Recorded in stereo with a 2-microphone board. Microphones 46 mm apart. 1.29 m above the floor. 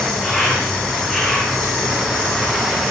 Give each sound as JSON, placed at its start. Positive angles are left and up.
{"t": 0.0, "sound": "an insect", "side_deg": 5, "distance_m": 6.5}